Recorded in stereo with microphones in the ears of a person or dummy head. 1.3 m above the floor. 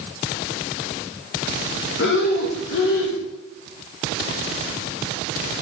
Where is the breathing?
70° left (ahead or behind), 1.2 m.